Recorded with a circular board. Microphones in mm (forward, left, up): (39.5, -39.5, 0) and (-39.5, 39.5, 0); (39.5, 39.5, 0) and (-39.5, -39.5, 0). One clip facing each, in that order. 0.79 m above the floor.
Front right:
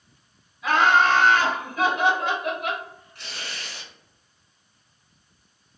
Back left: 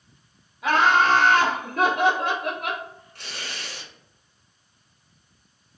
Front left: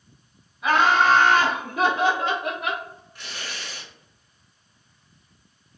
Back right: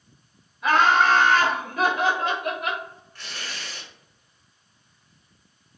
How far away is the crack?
I don't hear a crack.